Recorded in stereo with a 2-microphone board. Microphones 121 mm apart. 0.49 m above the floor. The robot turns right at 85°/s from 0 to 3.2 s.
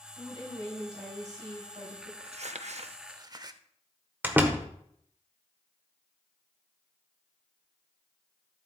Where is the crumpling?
55° right (ahead or behind), 0.6 m; by 3.6 s 35° right (ahead or behind), 0.6 m.